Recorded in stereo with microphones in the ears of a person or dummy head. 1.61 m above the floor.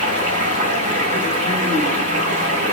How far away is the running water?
About 1.6 m.